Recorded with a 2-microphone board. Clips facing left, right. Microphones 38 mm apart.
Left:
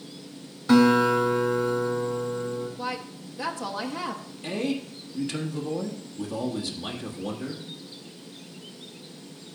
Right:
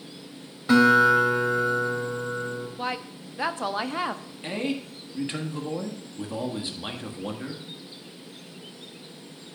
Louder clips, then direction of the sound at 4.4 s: Left 1 dB; 30° right (ahead or behind).